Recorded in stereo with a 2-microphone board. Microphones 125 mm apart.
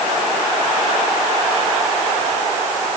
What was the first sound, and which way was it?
Only background noise.